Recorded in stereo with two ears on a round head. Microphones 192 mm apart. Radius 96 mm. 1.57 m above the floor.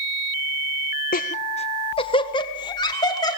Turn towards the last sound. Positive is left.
turn(degrees=20)  # may be behind; listen again after turning